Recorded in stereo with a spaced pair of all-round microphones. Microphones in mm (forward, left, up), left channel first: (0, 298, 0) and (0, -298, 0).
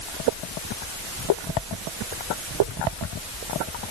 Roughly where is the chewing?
No chewing in this recording.